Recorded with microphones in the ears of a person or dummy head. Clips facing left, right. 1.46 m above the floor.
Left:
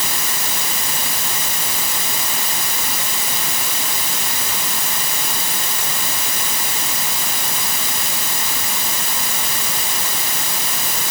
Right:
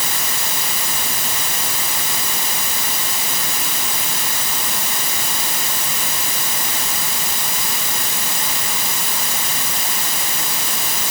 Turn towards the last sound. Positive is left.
No sound to turn to.